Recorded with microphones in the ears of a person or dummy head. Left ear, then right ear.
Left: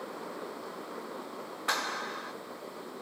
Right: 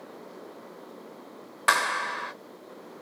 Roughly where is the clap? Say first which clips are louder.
Right 8 dB; right.